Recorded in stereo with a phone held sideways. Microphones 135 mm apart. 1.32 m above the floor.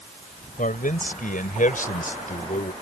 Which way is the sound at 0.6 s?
90° left.